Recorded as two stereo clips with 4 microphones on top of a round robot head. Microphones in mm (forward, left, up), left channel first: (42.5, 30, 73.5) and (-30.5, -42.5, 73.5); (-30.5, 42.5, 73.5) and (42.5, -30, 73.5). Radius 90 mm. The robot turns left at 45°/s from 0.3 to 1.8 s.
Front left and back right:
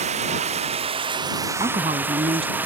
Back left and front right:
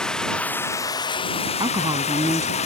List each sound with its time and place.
0.0 s running water: 140° right; by 2.7 s 150° left
1.6 s a woman speaking: 95° right; by 2.7 s 105° right